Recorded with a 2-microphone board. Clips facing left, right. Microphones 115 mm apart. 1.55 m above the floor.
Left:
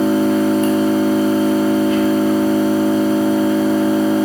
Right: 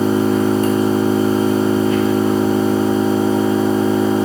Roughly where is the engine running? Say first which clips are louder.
Left 1 dB; right.